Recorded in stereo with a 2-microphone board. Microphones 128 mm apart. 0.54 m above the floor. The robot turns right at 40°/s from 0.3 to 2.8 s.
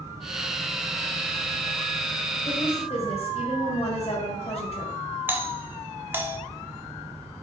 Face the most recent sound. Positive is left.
turn(degrees=-15)  # may be behind; listen again after turning